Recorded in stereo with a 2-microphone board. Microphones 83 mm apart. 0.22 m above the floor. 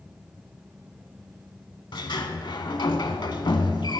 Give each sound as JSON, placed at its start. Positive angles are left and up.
{"t": 1.9, "sound": "a sliding door", "side_deg": 65, "distance_m": 0.6}